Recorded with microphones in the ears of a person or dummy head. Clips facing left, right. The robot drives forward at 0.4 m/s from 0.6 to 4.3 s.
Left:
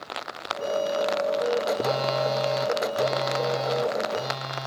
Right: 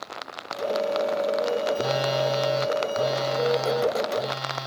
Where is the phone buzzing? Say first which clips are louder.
Right 1 dB; 15° right (ahead or behind), 0.5 m; by 4.7 s 5° right (ahead or behind), 1.5 m.